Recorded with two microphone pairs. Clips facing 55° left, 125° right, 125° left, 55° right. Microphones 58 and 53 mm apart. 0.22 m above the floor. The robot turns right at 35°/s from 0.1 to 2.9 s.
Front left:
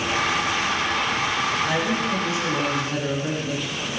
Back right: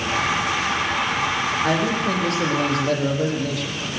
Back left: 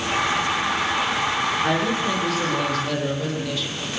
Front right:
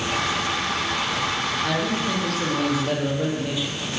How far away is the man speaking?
About 7.5 m.